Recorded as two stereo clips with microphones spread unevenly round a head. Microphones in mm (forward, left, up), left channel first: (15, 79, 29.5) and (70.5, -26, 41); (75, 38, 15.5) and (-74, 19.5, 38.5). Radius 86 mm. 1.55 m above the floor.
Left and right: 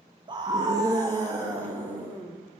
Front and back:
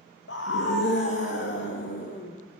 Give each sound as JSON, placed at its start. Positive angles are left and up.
{"t": 0.3, "sound": "a scream", "azimuth_deg": -15, "distance_m": 1.6}